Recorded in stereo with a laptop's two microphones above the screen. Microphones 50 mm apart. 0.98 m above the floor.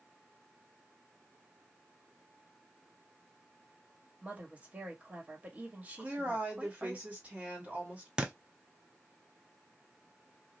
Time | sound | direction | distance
4.2 | a woman speaking | 30° right (ahead or behind) | 1.8 m
6.0 | a woman speaking | 25° right (ahead or behind) | 2 m
8.2 | a thud | 15° right (ahead or behind) | 0.7 m